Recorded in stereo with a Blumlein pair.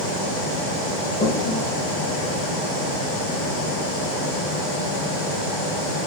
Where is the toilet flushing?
30° left, 2.0 m.